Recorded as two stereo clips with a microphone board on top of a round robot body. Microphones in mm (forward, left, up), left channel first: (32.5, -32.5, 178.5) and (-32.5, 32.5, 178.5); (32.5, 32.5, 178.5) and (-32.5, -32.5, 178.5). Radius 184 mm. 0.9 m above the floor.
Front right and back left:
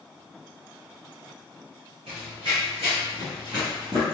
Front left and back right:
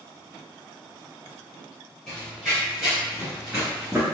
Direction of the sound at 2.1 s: 130° left.